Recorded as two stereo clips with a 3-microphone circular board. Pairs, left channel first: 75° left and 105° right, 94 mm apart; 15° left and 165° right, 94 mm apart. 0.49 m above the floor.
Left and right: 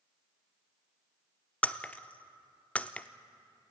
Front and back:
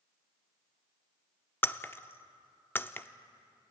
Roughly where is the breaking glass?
Ahead left.